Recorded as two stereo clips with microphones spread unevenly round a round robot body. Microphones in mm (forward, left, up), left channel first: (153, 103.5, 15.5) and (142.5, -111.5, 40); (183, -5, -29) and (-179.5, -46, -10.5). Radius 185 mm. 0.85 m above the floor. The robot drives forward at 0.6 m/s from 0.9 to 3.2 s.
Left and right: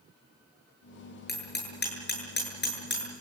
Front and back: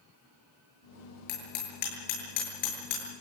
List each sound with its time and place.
1.3 s hammering: 45° left, 8 m; by 3.1 s 50° left, 7 m